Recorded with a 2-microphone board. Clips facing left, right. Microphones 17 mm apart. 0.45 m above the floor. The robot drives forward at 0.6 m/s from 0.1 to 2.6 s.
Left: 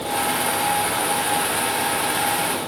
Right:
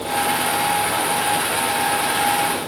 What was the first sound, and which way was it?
Only background noise.